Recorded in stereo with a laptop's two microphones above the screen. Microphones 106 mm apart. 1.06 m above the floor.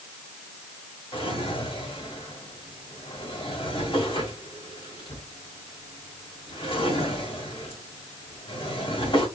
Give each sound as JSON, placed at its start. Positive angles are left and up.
{"t": 1.1, "sound": "a drawer", "side_deg": 55, "distance_m": 2.5}